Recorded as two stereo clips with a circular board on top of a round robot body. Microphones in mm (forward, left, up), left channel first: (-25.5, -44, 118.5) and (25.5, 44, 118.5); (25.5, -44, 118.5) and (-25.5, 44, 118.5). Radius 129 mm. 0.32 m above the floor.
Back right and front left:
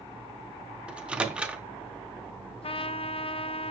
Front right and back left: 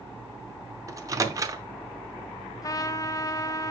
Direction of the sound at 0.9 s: 130° left.